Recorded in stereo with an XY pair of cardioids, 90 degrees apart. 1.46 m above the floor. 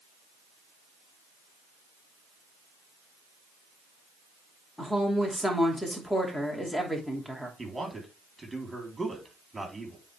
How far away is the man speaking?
About 4 m.